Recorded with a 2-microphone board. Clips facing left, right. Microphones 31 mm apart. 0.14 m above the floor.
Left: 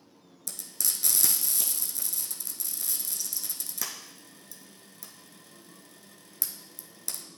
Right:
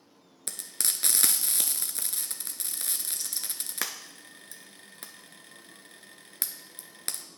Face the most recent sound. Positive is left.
turn(degrees=-50)  # may be behind; listen again after turning